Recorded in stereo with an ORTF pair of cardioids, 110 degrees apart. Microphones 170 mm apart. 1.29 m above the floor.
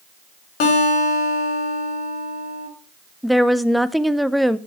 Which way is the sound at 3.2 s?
Straight ahead.